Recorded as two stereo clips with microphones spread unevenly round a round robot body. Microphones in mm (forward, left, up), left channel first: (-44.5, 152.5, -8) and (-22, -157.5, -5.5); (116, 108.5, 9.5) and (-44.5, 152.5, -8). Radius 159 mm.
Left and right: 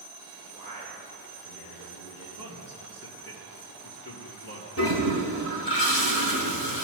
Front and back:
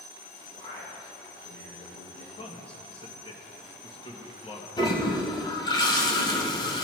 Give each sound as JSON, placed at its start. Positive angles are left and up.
{"t": 0.5, "sound": "a man speaking", "azimuth_deg": 20, "distance_m": 3.5}
{"t": 2.4, "sound": "a man speaking", "azimuth_deg": 40, "distance_m": 1.8}
{"t": 4.8, "sound": "a toilet flushing", "azimuth_deg": 45, "distance_m": 1.9}